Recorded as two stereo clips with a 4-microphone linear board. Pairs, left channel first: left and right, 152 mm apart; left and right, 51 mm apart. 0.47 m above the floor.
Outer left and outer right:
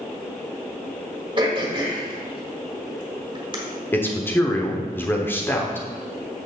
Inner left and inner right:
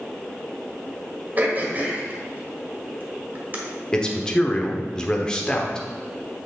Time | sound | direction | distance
1.4 | throat clearing | 35° right (ahead or behind) | 1.6 m
3.9 | a man speaking | 15° left (ahead or behind) | 0.9 m